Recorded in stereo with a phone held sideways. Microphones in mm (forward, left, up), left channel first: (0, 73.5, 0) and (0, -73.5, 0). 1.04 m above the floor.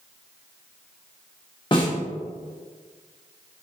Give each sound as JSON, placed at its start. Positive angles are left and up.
{"t": 1.7, "sound": "a snare drum", "side_deg": 30, "distance_m": 1.2}